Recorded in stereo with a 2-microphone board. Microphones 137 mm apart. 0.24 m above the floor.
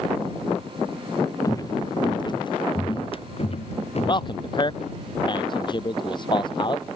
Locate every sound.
1.4 s footsteps: 25° left (ahead or behind); by 4.9 s 60° left (ahead or behind)
4.1 s a man speaking: 35° left (ahead or behind)